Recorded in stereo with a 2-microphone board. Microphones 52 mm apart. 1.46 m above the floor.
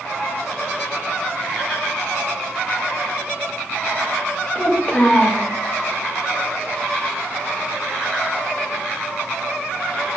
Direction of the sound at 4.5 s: 20° left (ahead or behind).